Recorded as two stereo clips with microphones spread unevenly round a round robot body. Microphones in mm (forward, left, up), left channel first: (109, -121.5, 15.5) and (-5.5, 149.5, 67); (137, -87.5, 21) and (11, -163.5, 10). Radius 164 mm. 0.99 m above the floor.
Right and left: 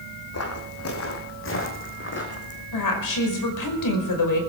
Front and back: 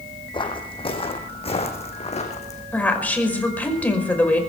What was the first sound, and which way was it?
Footsteps, 25° right.